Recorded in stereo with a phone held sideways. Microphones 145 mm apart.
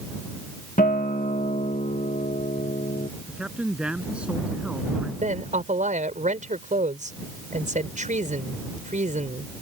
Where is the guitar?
70° left (ahead or behind).